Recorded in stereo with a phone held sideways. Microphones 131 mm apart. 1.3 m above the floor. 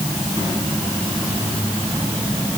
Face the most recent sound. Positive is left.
No sound to turn to.